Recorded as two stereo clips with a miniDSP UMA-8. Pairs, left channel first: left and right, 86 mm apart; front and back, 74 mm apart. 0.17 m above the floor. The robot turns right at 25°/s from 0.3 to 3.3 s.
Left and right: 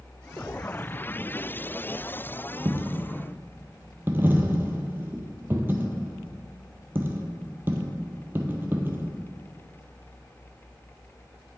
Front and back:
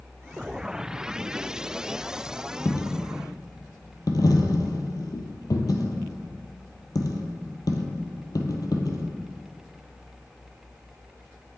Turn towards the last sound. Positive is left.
turn(degrees=-25)